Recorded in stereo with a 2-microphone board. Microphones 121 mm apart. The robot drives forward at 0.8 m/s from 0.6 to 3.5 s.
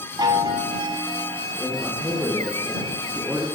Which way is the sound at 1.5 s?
10° right (ahead or behind).